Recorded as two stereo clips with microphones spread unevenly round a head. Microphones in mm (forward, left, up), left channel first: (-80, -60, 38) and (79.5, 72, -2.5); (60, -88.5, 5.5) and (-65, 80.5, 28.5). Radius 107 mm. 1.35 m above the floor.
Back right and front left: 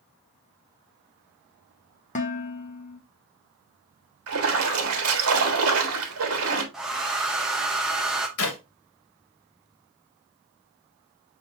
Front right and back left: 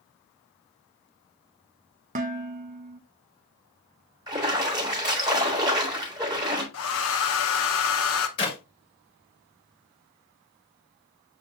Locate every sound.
2.1 s dishes clattering: 175° left, 0.6 m
4.3 s a splash: 60° left, 1.2 m
6.7 s a hair dryer: 55° right, 0.7 m
8.4 s a clap: 120° right, 1.3 m